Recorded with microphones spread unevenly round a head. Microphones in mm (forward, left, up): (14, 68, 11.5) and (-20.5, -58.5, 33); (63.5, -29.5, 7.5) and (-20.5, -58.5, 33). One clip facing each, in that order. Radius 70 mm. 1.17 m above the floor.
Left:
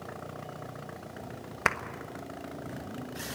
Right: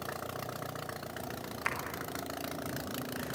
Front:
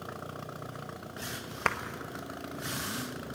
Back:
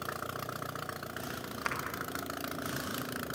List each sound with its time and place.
1.6 s a clap: 65° left, 1.3 m